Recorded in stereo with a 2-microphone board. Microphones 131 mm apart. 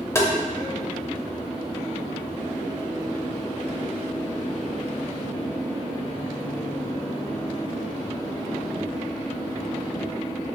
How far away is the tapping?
About 0.5 m.